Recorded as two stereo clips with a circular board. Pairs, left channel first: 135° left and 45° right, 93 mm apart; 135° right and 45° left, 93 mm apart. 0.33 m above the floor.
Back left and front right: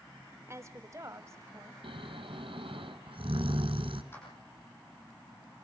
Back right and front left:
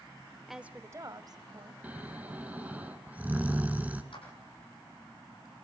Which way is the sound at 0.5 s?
45° right.